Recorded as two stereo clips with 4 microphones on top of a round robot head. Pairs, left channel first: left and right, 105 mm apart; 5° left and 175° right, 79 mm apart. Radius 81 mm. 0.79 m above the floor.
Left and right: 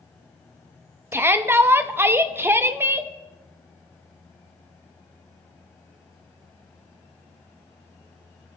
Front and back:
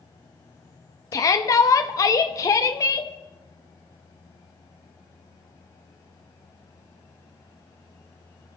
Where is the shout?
25° right, 0.9 m.